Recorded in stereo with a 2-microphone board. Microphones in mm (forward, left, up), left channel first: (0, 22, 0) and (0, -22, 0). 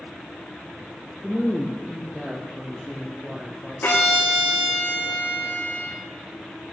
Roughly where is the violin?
Left.